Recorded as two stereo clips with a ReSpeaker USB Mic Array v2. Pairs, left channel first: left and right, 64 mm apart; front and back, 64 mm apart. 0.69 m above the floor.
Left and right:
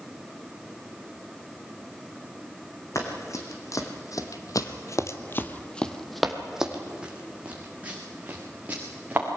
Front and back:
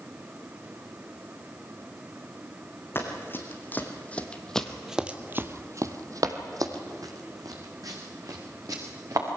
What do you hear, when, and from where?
3.0 s running footsteps: 55° left, 3 m; by 9.3 s 155° right, 4.5 m